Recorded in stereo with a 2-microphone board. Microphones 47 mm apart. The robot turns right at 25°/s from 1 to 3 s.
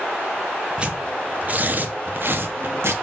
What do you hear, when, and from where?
0.8 s tearing paper: 25° right (ahead or behind), 1.4 m; by 2.9 s 65° right (ahead or behind), 1.4 m